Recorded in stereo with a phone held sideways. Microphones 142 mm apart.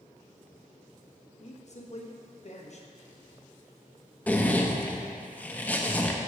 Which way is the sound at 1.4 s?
50° left (ahead or behind).